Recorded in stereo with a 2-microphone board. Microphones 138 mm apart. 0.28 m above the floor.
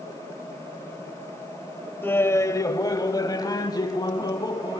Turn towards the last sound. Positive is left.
turn(degrees=30)  # may be behind; listen again after turning